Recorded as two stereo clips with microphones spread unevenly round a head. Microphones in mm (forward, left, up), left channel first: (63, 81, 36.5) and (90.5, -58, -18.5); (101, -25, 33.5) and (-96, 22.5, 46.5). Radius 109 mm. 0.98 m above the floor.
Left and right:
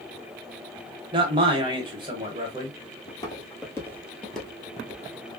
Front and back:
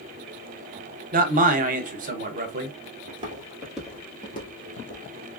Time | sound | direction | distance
1.1 | a man speaking | 140° right | 0.7 m
3.1 | footsteps | 115° left | 1.3 m